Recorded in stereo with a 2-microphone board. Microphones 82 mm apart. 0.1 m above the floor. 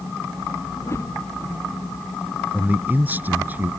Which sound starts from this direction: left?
A whoosh, at 0.8 s.